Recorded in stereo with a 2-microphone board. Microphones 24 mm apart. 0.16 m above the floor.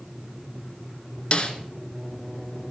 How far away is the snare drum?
About 1.2 m.